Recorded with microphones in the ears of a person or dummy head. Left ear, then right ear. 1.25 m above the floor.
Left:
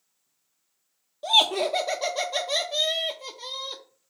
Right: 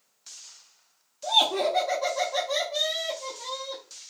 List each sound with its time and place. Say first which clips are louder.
1.2 s laughter: left 2 dB; 40° left (ahead or behind), 0.5 m